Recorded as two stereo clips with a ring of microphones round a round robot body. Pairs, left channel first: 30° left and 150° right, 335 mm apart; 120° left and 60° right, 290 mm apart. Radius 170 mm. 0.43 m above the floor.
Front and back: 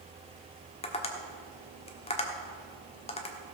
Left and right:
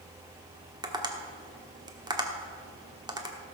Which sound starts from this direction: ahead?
Tapping, at 0.8 s.